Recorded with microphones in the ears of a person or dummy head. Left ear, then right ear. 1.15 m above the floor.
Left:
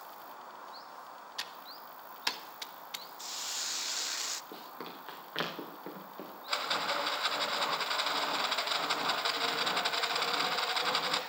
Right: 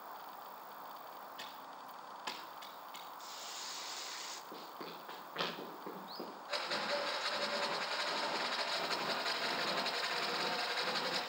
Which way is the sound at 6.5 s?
45° left (ahead or behind).